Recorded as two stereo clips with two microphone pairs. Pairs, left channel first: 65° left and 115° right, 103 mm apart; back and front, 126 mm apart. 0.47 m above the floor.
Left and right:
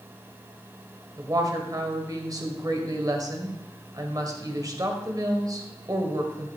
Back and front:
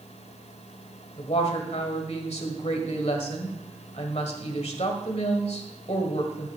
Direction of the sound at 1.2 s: 165° right.